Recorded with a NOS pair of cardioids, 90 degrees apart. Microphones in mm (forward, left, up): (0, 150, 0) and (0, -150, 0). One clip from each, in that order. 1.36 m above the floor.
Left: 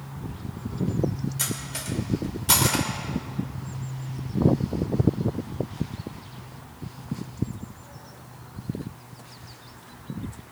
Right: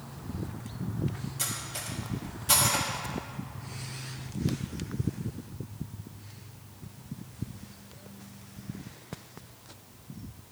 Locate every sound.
1.4 s cutlery clinking: 45° left, 3.5 m